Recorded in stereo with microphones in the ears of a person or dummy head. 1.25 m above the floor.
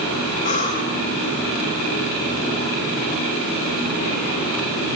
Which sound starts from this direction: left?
Breathing, at 0.4 s.